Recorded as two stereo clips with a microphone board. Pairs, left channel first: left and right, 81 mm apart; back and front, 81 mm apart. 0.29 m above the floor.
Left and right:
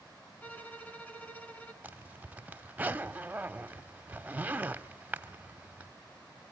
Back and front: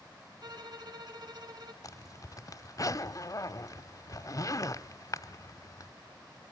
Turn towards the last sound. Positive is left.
turn(degrees=-155)